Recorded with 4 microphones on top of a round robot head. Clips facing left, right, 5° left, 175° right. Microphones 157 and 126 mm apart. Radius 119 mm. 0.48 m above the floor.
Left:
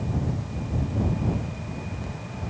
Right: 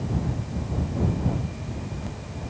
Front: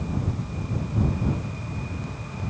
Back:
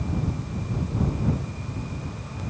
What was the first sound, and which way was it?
Only background noise.